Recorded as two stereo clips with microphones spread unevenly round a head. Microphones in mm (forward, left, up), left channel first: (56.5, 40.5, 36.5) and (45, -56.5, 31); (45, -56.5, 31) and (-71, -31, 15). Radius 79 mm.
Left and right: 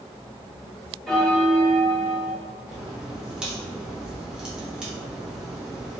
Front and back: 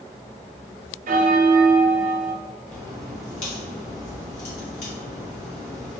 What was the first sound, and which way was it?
A bell, 170° left.